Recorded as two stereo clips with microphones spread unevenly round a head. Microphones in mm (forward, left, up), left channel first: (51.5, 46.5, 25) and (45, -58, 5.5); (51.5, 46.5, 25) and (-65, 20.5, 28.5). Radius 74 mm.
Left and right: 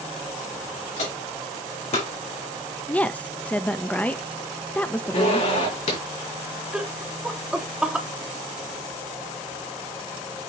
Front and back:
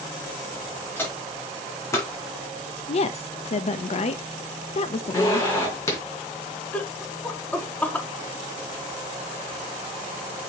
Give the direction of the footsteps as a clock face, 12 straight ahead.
9 o'clock.